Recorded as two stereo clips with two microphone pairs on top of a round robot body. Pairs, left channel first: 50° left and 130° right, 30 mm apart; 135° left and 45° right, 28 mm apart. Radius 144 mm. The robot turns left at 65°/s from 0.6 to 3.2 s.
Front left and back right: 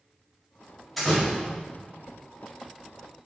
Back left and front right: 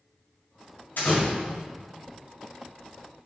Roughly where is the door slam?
Behind left.